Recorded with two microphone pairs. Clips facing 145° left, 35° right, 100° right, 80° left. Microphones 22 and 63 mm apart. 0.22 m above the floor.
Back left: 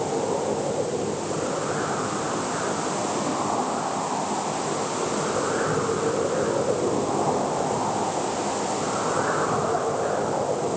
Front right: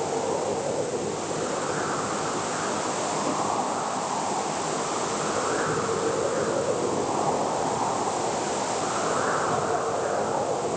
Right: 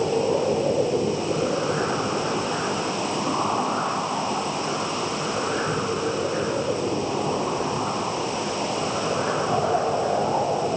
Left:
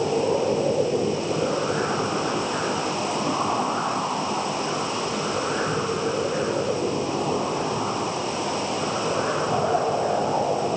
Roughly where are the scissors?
I don't hear scissors.